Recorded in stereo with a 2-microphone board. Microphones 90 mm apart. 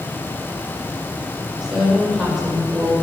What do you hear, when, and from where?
1.6 s a woman speaking: 5° right (ahead or behind), 7 m; by 2.9 s centre (ahead or behind), 7.5 m